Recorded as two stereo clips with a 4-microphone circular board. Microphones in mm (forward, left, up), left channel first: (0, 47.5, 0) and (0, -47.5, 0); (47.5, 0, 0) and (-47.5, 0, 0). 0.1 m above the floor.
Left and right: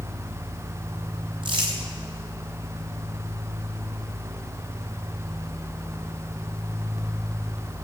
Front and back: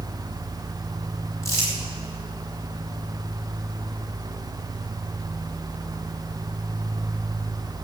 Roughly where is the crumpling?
Ahead right.